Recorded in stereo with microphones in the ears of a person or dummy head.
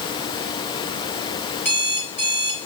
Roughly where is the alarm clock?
Centre.